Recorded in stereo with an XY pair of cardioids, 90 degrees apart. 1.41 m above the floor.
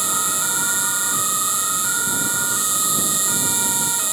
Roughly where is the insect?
Ahead right.